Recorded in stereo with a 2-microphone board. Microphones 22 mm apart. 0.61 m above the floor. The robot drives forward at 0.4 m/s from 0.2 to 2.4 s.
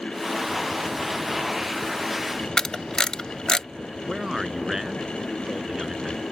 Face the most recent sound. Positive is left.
turn(degrees=-20)  # may be behind; listen again after turning